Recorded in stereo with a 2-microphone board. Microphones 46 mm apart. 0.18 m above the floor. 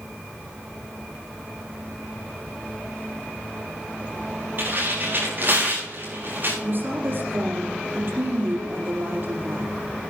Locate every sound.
4.6 s tearing paper: 45° right (ahead or behind), 8 m
6.6 s a woman speaking: 50° right (ahead or behind), 4.5 m